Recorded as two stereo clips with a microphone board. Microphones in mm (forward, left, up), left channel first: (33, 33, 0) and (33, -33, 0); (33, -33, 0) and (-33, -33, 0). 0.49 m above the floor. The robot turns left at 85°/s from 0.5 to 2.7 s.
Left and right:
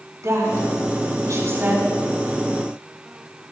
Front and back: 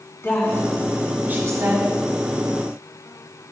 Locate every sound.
0.2 s a woman speaking: 50° right, 5 m; by 1.9 s 165° right, 5 m